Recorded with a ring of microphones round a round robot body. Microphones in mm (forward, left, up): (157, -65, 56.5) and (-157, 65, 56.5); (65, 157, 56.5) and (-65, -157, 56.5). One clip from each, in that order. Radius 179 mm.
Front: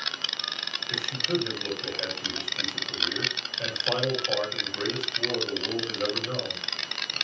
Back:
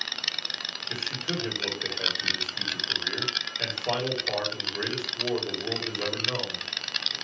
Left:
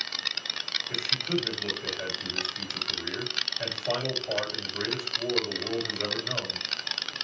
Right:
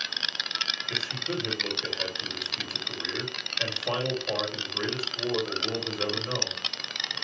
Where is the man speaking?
150° right, 2 m.